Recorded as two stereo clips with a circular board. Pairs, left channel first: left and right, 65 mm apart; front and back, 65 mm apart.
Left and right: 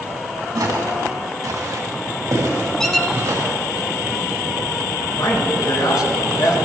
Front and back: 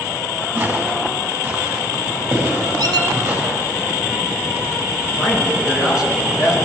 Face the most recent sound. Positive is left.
turn(degrees=100)